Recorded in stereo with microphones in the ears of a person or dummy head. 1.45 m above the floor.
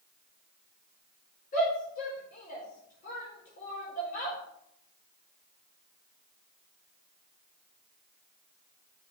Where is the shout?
50° left (ahead or behind), 4 m.